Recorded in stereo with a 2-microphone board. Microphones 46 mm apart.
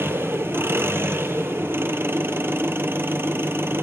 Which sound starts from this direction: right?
An engine running, at 0.0 s.